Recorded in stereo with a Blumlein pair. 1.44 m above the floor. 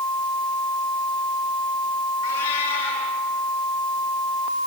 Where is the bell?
I don't hear a bell.